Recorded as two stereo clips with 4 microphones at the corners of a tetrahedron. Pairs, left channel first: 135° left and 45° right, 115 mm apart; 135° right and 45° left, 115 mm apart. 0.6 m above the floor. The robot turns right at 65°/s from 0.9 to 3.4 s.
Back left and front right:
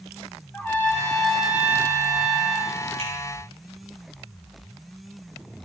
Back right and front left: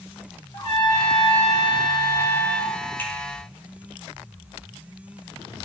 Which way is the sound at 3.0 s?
65° right.